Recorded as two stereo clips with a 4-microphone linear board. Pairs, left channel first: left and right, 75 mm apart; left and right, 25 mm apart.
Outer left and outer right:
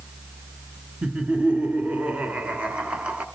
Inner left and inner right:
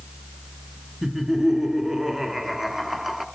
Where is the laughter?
15° right (ahead or behind), 1.1 m.